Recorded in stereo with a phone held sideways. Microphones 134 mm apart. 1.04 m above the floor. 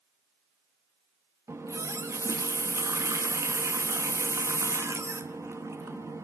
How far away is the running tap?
About 0.9 m.